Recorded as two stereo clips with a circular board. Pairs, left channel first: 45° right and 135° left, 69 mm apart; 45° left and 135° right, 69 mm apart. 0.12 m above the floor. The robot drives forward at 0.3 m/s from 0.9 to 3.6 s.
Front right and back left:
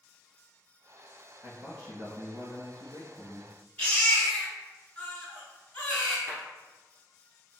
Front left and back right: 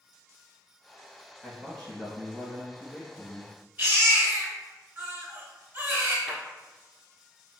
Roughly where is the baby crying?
Right.